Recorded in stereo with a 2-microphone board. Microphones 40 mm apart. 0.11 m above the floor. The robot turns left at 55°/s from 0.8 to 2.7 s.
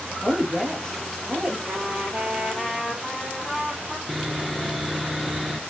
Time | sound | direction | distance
0.2 | a woman speaking | 15° left | 5 m
1.7 | a trumpet | 110° right | 2.5 m
4.1 | sawing | 5° right (ahead or behind) | 0.8 m